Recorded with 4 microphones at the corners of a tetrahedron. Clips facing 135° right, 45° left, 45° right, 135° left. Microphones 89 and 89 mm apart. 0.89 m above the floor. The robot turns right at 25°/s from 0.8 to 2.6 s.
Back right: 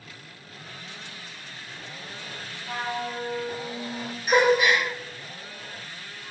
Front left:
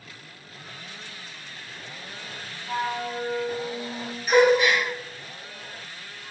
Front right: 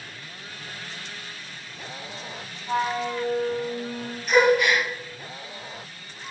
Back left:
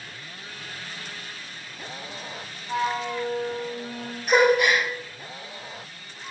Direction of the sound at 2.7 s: 80° right.